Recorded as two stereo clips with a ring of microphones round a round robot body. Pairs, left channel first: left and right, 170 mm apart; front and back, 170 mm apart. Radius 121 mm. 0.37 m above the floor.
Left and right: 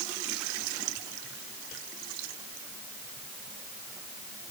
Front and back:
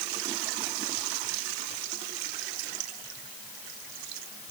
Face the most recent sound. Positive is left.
No sound to turn to.